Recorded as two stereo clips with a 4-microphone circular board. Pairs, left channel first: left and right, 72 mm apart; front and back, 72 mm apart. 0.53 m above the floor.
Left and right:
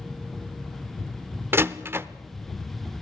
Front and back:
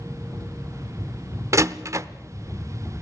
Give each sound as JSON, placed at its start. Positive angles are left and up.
{"t": 1.5, "sound": "a door slam", "azimuth_deg": -145, "distance_m": 0.7}